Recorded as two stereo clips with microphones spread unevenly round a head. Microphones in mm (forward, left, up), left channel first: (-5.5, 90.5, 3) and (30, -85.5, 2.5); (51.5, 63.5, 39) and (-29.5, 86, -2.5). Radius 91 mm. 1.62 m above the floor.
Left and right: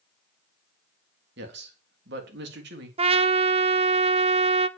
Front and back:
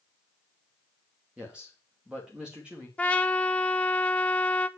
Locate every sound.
1.4 s a man speaking: 115° right, 3.5 m
3.0 s a trumpet: 35° right, 0.7 m